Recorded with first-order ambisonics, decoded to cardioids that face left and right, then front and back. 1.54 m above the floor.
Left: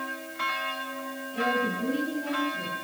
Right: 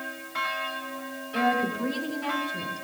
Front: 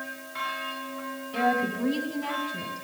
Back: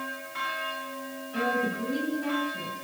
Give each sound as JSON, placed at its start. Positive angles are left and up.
{"t": 1.3, "sound": "a woman speaking", "azimuth_deg": -30, "distance_m": 3.5}